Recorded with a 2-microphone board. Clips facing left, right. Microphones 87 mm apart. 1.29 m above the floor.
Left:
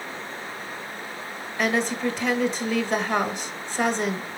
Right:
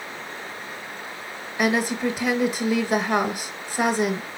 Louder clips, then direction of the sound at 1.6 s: Right 2 dB; 10° right (ahead or behind).